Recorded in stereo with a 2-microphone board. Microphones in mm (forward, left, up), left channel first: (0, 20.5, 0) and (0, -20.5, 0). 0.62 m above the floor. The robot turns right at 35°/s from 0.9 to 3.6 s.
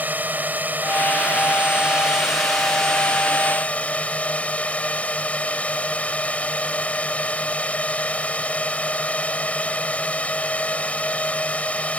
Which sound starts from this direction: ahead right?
A drone, at 0.0 s.